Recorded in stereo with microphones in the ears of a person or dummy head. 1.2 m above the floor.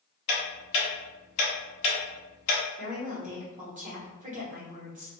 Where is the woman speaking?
35° right (ahead or behind), 1.2 m.